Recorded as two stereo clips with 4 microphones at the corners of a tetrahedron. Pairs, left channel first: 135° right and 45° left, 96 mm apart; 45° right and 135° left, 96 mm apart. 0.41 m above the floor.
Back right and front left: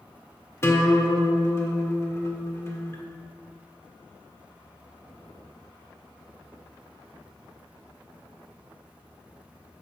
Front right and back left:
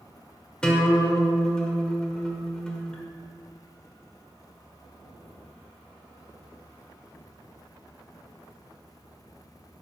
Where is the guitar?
115° right, 1.4 m.